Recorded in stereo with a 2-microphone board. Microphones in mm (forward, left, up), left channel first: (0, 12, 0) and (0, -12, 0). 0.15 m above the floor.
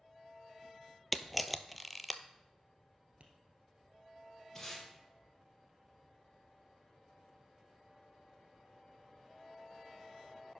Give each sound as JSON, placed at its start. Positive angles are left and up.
{"t": 1.1, "sound": "a camera shutter", "side_deg": 0, "distance_m": 0.5}
{"t": 3.2, "sound": "tapping", "side_deg": -60, "distance_m": 1.3}
{"t": 4.5, "sound": "tape being pulled", "side_deg": 20, "distance_m": 4.0}